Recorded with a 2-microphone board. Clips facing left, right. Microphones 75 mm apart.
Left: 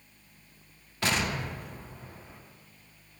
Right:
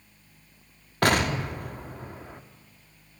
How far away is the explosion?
About 0.7 m.